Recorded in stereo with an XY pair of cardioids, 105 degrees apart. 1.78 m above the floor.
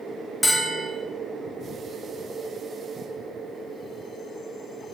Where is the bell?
Straight ahead, 1.3 m.